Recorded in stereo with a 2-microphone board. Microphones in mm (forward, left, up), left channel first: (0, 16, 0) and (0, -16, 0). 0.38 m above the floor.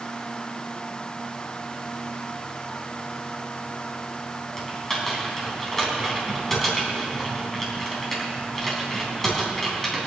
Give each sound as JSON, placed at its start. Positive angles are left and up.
{"t": 4.6, "sound": "typing on a keyboard", "side_deg": 10, "distance_m": 4.0}